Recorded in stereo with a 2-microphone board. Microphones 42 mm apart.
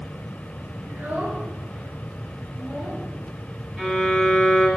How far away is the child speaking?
About 3 m.